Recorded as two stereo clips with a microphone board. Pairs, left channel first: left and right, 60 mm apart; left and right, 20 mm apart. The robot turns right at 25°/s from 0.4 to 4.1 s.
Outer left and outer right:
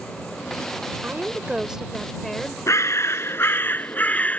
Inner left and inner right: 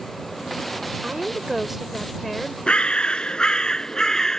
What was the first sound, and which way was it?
A woman speaking, 30° right.